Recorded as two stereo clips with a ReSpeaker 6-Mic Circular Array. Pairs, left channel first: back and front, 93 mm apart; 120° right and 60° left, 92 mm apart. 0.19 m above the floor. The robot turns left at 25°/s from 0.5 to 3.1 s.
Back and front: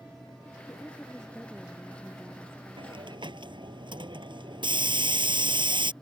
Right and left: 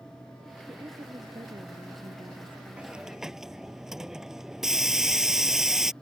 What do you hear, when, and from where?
0.7 s a woman speaking: 110° left; by 3.0 s 50° left
2.8 s a hiss: 15° right; by 5.9 s 25° right